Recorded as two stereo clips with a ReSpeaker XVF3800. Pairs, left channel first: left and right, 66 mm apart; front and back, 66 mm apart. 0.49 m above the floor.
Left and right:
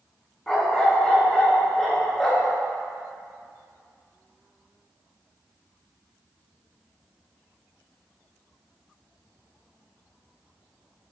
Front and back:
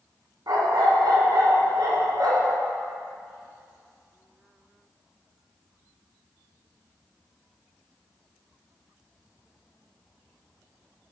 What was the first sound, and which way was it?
A dog barking, 165° left.